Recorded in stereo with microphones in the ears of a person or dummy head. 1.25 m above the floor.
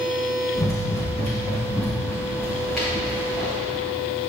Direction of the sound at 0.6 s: 10° left (ahead or behind).